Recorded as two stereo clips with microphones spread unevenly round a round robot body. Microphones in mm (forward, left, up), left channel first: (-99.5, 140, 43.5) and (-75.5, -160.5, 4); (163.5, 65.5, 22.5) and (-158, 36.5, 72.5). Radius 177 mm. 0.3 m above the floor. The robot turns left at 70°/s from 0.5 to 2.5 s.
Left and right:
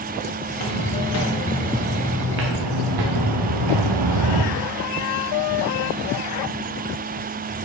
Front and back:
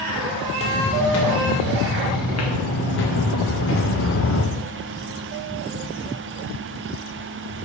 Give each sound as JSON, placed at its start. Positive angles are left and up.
{"t": 0.5, "sound": "footsteps", "azimuth_deg": 85, "distance_m": 4.0}